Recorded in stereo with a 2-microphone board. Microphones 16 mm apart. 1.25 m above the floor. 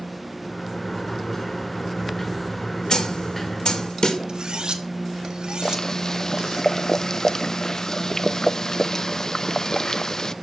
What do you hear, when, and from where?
0.4 s a sliding door: 10° left (ahead or behind), 5.5 m
2.9 s a snare drum: 55° left (ahead or behind), 1.6 m
4.3 s cutlery clinking: 70° right (ahead or behind), 1.4 m
5.6 s boiling: 40° left (ahead or behind), 0.5 m